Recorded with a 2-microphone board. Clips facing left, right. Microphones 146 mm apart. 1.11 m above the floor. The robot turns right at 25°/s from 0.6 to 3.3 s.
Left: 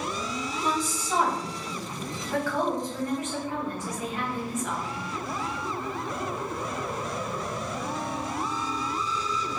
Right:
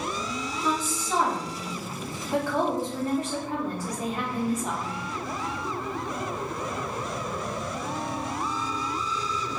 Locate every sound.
0.6 s a woman speaking: 160° left, 1.0 m; by 5.0 s 135° right, 1.0 m